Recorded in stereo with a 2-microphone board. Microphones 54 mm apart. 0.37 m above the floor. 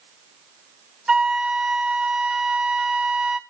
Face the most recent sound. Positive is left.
turn(degrees=-10)  # may be behind; listen again after turning